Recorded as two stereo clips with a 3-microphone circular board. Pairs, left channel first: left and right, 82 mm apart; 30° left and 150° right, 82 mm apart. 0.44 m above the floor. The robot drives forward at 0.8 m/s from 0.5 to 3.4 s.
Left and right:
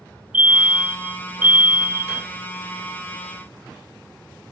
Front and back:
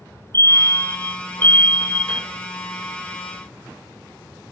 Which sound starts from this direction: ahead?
A fire alarm, at 0.3 s.